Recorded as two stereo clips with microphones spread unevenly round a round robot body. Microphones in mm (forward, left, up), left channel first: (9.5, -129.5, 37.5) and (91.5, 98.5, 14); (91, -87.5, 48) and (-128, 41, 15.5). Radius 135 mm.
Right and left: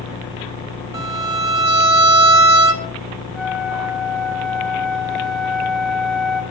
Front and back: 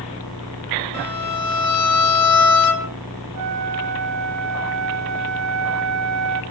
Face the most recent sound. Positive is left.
turn(degrees=160)